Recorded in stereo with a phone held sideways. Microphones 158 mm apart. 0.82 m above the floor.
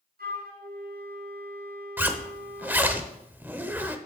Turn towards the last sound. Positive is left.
turn(degrees=-10)  # may be behind; listen again after turning